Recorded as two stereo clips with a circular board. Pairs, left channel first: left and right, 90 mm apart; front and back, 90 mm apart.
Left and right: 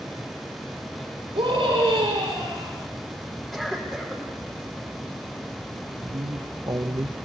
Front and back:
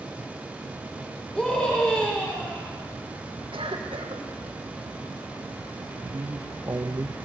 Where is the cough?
175° left, 5.5 m.